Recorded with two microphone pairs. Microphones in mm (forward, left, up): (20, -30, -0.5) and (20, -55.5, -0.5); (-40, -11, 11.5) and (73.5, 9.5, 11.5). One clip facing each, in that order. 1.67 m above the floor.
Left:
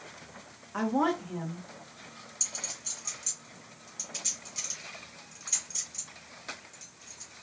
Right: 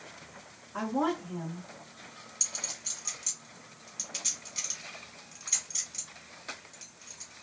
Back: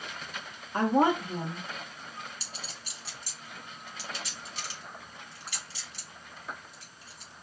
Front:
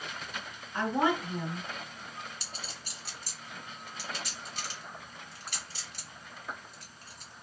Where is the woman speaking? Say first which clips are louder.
Left 2 dB, back 4 dB; 150° left, 1.4 m.